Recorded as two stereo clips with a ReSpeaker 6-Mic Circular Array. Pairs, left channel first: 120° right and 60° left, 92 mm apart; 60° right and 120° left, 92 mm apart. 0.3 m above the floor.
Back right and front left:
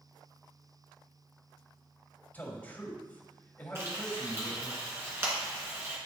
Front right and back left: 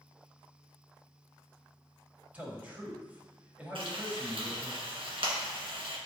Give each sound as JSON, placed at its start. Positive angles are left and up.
{"t": 2.3, "sound": "a man speaking", "azimuth_deg": -175, "distance_m": 1.7}
{"t": 3.8, "sound": "frying", "azimuth_deg": 120, "distance_m": 2.0}